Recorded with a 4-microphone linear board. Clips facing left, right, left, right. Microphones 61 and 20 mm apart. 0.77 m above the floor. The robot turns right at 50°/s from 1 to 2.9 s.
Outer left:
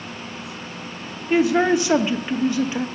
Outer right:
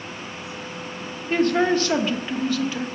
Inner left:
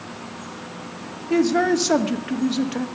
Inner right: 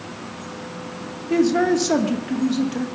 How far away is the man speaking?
About 1.0 m.